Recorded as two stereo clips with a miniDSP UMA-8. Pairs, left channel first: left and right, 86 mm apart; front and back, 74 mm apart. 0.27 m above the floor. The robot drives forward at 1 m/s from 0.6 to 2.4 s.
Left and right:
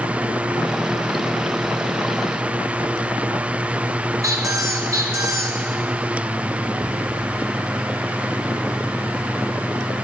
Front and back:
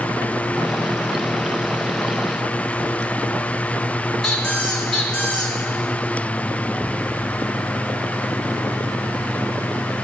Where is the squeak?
85° right, 1.1 m.